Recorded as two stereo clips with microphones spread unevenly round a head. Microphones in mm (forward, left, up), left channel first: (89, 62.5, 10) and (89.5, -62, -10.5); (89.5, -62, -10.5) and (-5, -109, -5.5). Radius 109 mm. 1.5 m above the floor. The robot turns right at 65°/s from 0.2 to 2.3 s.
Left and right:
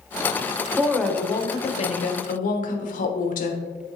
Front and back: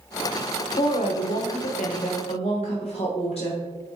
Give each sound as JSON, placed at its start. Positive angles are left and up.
{"t": 0.8, "sound": "a woman speaking", "azimuth_deg": -10, "distance_m": 1.1}